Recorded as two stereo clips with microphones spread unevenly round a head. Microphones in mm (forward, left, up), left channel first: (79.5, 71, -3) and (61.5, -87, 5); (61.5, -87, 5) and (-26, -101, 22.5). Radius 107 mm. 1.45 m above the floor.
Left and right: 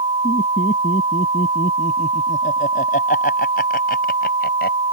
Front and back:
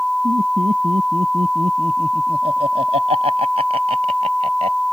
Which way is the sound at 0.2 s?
145° left.